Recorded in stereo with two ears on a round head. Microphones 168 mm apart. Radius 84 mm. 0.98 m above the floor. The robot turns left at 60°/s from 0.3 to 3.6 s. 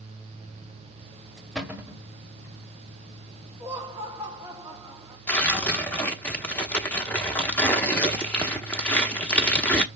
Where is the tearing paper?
10° left (ahead or behind), 0.9 m.